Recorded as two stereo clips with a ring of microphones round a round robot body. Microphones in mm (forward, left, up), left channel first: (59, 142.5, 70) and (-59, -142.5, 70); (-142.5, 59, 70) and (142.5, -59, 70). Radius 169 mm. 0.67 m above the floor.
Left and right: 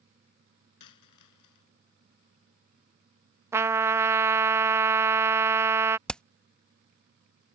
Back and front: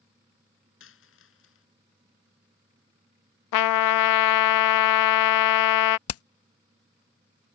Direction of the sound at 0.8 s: 105° left.